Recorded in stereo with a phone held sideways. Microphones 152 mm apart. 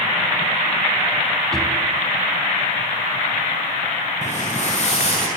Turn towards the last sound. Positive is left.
turn(degrees=45)  # may be behind; listen again after turning